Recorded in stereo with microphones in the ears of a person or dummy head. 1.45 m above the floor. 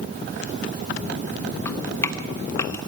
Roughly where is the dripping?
Centre.